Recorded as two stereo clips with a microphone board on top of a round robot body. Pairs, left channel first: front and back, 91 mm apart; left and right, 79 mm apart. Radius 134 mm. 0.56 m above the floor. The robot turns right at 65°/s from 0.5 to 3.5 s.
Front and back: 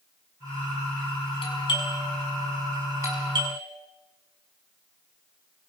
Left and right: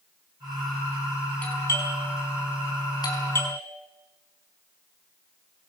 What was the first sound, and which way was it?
A doorbell, 20° left.